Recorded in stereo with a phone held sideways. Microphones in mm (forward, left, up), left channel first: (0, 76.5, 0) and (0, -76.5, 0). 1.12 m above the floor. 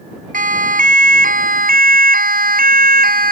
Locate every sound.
0.3 s a siren: 65° right (ahead or behind); by 3.3 s 75° right (ahead or behind)